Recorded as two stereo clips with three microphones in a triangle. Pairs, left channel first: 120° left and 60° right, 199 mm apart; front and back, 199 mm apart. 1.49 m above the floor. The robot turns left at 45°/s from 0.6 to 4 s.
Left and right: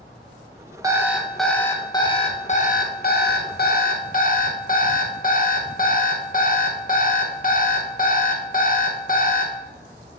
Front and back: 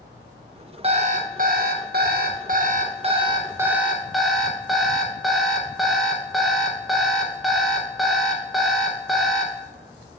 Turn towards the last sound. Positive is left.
turn(degrees=90)